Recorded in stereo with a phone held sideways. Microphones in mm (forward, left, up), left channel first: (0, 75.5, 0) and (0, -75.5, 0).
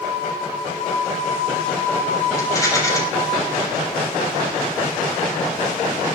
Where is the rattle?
20° left (ahead or behind), 6 m.